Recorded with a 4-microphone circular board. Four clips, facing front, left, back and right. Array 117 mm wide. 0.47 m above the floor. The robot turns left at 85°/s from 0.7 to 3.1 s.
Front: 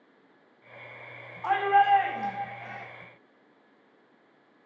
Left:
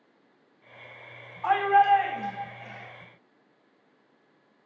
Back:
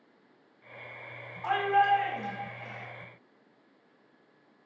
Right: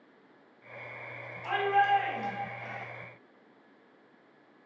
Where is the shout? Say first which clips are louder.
Left 6 dB, front 3 dB; 95° left, 3.5 m; by 2.9 s 30° right, 3.5 m.